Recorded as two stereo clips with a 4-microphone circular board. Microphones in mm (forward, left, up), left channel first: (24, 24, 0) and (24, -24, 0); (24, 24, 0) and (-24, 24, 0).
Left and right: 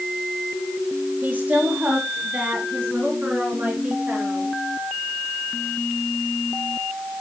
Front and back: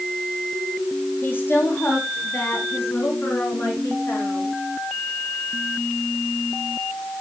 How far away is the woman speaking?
About 2 m.